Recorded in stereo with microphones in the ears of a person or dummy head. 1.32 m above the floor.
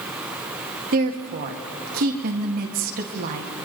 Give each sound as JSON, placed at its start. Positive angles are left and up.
{"t": 0.9, "sound": "a woman speaking", "side_deg": -55, "distance_m": 1.8}